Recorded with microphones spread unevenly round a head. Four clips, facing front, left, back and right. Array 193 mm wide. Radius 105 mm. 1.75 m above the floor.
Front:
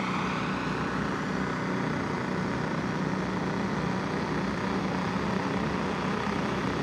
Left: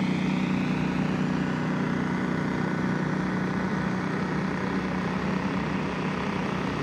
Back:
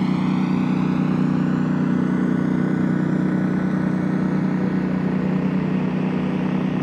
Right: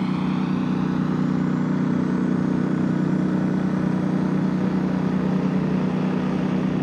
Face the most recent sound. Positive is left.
turn(degrees=-140)